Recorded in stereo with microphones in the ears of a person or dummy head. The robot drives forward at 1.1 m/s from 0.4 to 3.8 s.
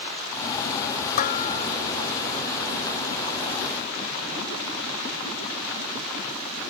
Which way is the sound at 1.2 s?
50° left (ahead or behind).